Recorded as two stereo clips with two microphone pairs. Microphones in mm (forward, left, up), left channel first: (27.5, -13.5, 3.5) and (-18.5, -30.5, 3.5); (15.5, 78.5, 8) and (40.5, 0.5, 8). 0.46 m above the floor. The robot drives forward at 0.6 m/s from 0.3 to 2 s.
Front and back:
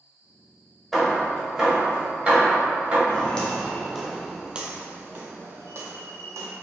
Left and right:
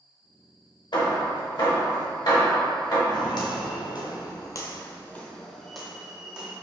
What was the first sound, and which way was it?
Hammering, 110° left.